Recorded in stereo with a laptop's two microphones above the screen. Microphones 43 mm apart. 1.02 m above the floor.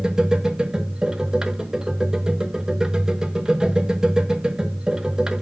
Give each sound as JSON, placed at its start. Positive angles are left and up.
{"t": 0.0, "sound": "a machine running", "side_deg": -20, "distance_m": 0.7}